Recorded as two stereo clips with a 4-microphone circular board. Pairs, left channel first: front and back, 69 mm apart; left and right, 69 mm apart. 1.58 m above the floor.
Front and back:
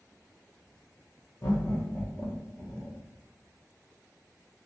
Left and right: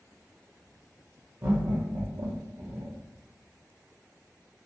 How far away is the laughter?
About 0.6 m.